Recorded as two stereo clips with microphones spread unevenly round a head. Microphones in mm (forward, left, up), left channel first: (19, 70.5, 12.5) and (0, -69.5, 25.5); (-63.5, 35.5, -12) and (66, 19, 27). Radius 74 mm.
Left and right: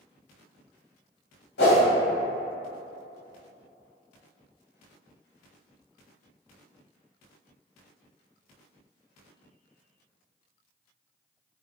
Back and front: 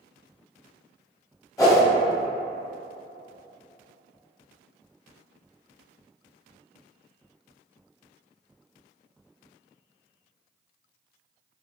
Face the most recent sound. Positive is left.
turn(degrees=100)